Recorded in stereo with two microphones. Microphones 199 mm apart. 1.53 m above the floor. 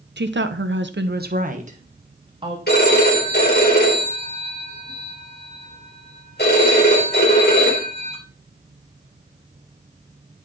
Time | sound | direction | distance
0.2 | a woman speaking | 65° right (ahead or behind) | 1.0 m
2.7 | a phone ringing | 60° left (ahead or behind) | 3.5 m